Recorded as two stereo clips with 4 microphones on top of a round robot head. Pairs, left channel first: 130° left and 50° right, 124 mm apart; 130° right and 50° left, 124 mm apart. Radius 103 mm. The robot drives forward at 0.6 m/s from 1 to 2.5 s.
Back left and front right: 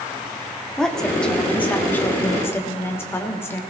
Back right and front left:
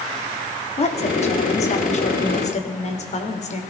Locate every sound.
0.8 s a woman speaking: 145° right, 1.9 m; by 3.6 s 155° right, 2.5 m